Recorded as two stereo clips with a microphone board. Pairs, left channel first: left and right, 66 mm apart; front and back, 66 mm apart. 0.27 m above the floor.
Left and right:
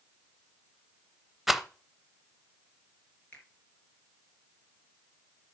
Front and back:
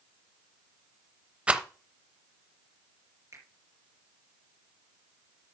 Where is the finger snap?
150° left, 3.5 m.